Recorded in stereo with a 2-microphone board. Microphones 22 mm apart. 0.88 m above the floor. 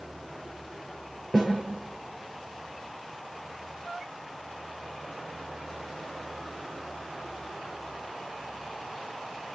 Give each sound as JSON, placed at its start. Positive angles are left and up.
{"t": 1.3, "sound": "a snare drum", "side_deg": -10, "distance_m": 9.0}